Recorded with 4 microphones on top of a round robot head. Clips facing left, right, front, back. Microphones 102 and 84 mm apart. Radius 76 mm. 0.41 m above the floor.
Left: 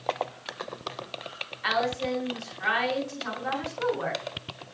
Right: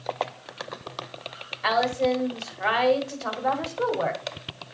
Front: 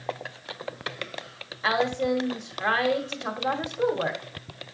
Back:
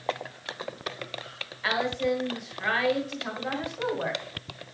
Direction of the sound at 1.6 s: 55° right.